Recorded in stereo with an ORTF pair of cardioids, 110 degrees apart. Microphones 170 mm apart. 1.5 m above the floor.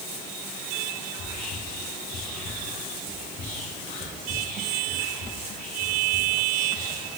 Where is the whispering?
55° left, 1.2 m.